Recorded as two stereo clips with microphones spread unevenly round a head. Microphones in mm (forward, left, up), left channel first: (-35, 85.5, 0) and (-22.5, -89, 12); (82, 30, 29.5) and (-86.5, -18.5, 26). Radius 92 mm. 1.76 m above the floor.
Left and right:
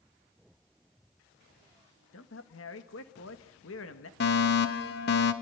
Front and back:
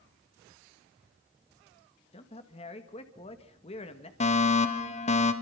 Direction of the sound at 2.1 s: 75° left.